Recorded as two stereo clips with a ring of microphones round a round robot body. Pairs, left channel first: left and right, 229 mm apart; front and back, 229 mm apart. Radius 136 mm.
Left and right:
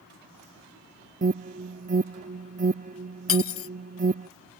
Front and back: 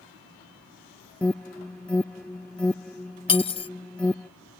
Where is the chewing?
No chewing in this recording.